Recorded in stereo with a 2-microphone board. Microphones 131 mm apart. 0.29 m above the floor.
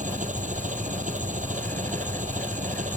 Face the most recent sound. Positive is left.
turn(degrees=-75)  # may be behind; listen again after turning